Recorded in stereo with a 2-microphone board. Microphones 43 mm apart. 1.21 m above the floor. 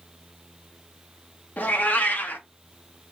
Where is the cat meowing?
40° left (ahead or behind), 0.7 m.